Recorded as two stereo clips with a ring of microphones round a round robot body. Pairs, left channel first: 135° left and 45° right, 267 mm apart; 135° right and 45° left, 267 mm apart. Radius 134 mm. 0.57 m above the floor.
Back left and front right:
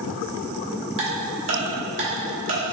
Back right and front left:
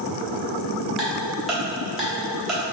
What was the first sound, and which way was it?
Ticking, 45° right.